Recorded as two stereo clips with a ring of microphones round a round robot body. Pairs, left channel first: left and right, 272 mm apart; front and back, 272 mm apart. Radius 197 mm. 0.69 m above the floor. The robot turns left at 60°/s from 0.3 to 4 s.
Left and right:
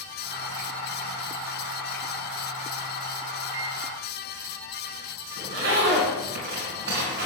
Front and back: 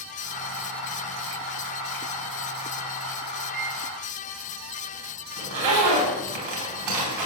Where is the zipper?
155° right, 3 m.